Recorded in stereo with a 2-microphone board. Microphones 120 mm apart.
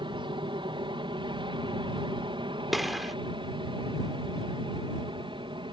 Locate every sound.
0.0 s an aircraft: 45° right (ahead or behind)
2.7 s a gunshot: centre (ahead or behind)